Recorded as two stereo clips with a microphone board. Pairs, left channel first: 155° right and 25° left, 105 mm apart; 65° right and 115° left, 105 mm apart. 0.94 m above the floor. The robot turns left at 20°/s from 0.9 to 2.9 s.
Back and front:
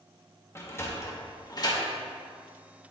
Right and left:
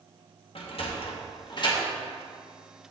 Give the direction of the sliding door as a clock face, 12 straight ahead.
3 o'clock.